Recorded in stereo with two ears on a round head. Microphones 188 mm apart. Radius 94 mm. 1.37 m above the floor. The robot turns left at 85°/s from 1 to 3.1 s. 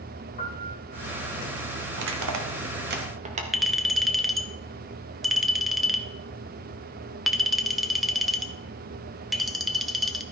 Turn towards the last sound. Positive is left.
turn(degrees=0)  # may be behind; listen again after turning